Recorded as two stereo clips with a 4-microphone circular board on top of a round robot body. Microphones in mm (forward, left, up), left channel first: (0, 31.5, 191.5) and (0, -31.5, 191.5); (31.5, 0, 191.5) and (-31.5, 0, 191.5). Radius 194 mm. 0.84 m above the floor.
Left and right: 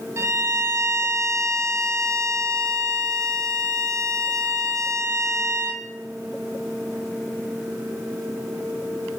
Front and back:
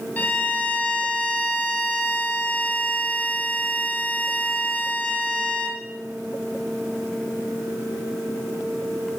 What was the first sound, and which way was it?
A violin, 60° right.